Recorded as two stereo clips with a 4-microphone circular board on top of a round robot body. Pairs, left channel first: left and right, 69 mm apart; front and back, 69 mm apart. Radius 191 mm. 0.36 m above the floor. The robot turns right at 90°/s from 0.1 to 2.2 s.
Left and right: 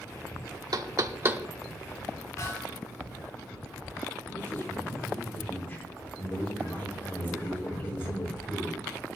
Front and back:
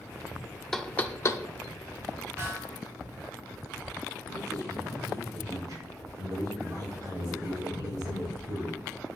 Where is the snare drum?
130° left, 4.5 m.